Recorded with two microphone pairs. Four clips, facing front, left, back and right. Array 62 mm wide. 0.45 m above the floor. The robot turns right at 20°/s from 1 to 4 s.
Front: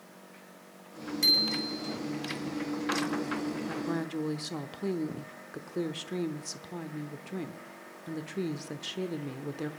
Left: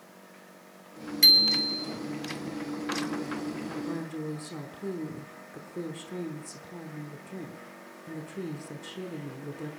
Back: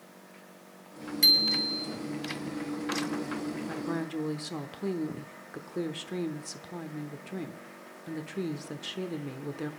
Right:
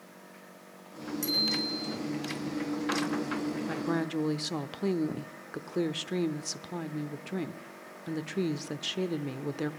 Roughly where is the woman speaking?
Right.